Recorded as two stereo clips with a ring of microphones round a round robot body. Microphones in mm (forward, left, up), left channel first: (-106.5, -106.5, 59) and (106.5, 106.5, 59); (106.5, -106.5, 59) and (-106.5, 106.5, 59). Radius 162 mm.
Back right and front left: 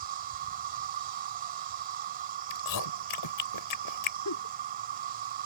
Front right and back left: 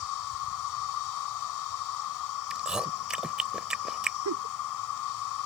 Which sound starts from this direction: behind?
A giggle, at 4.2 s.